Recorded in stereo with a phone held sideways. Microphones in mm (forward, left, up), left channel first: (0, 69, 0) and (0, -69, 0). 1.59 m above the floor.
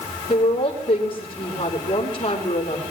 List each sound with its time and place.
0.3 s a woman speaking: 40° left (ahead or behind), 5.5 m